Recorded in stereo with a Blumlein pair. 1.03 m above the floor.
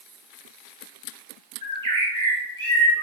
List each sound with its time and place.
1.6 s a bird: 70° right, 0.9 m